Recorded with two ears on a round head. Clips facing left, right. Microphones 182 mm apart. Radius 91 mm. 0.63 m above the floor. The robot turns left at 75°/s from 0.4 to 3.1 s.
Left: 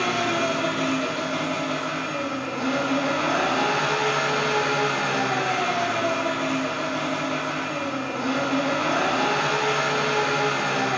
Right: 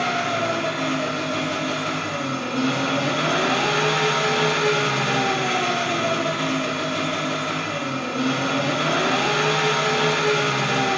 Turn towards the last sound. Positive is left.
turn(degrees=-135)